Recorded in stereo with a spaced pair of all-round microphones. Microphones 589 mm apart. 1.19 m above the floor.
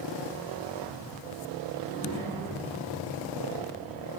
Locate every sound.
1.8 s a child speaking: 20° left (ahead or behind), 7 m; by 4.1 s 5° right (ahead or behind), 5 m